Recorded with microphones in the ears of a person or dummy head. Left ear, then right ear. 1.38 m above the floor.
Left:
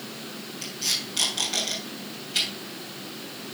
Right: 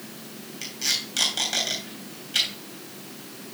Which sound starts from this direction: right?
Tape being pulled, at 0.6 s.